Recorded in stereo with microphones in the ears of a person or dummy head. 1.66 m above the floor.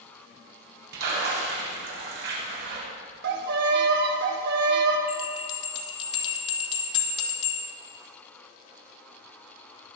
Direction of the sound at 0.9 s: 65° right (ahead or behind).